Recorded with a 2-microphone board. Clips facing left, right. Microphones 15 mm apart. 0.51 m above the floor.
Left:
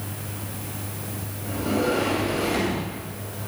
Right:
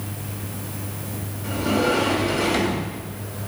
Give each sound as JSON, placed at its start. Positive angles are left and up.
{"t": 1.4, "sound": "a sliding door", "side_deg": -35, "distance_m": 2.5}